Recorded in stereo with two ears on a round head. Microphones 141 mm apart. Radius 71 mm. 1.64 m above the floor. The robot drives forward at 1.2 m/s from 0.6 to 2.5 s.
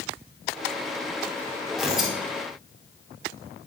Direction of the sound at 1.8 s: 5° right (ahead or behind).